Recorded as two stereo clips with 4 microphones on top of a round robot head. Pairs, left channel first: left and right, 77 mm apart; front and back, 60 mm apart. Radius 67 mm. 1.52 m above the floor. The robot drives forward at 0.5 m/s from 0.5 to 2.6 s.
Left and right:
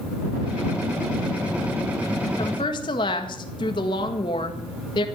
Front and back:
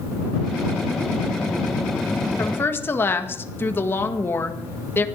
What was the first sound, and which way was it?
A woman speaking, 50° left.